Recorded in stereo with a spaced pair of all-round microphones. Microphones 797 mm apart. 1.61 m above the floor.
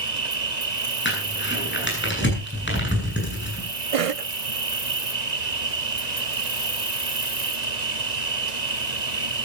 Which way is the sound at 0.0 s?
55° right (ahead or behind).